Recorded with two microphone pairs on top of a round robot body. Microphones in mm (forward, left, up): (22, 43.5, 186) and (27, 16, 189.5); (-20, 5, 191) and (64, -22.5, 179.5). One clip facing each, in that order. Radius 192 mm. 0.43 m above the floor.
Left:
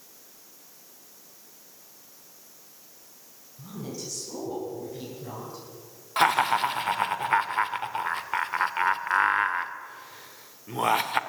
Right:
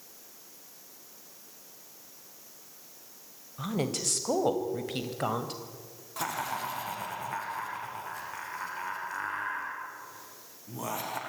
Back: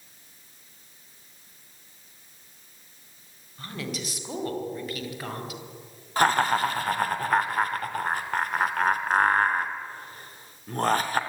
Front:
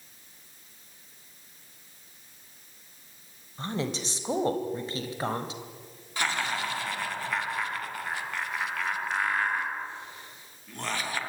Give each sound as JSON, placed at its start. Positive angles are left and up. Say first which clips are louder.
{"t": 3.6, "sound": "a woman speaking", "louder": "right 6 dB, front 3 dB", "azimuth_deg": -75, "distance_m": 3.0}
{"t": 6.2, "sound": "laughter", "louder": "left 12 dB, back 9 dB", "azimuth_deg": 120, "distance_m": 2.5}